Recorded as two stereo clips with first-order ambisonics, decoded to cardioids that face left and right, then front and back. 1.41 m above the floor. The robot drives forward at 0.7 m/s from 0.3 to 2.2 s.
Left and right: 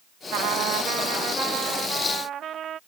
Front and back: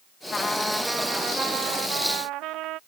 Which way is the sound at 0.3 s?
70° right.